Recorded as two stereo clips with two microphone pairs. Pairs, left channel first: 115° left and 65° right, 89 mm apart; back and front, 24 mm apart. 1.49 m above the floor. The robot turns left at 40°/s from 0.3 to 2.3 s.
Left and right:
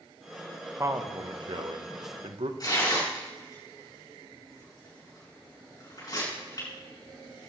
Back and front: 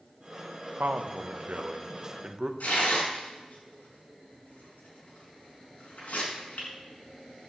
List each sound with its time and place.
0.8 s a man speaking: straight ahead, 1.3 m; by 2.5 s 60° right, 1.3 m
2.6 s tearing paper: 165° left, 6.5 m